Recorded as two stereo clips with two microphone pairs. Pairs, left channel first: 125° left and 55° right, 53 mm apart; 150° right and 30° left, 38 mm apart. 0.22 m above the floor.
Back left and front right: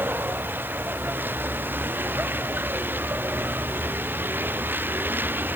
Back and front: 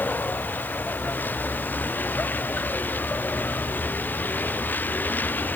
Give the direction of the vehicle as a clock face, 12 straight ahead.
4 o'clock.